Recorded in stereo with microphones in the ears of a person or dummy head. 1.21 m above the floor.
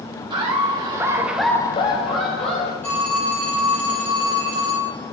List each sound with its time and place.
0.3 s laughter: 25° right (ahead or behind), 1.3 m; by 2.7 s 30° left (ahead or behind), 1.2 m
2.8 s a phone ringing: 10° left (ahead or behind), 0.7 m